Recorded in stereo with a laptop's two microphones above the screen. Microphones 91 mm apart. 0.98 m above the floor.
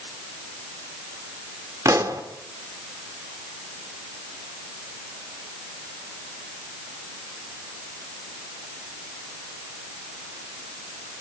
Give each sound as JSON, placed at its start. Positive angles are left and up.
{"t": 1.9, "sound": "a pop", "side_deg": -40, "distance_m": 1.8}